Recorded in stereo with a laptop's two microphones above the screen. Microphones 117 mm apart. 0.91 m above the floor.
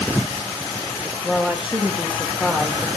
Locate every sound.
1.2 s a woman speaking: 10° right (ahead or behind), 1.4 m